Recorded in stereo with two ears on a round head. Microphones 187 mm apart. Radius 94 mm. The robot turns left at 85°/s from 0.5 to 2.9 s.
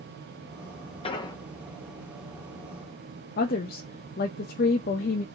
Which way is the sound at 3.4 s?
45° left (ahead or behind).